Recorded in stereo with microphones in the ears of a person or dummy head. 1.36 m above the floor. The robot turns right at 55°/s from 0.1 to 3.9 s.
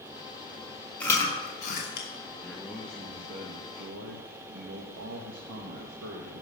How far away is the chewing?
About 2.5 m.